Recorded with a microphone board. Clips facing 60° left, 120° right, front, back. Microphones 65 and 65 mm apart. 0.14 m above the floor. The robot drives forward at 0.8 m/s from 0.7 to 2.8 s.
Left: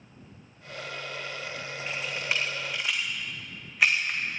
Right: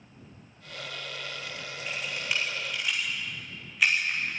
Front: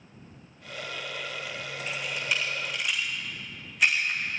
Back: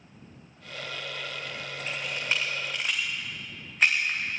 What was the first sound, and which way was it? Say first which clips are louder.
A camera shutter: left 1 dB, even; 120° left.